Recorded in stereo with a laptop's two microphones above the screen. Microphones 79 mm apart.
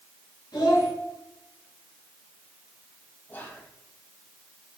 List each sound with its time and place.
0.5 s a child speaking: 65° left (ahead or behind), 3 m
3.3 s whispering: 25° left (ahead or behind), 1.2 m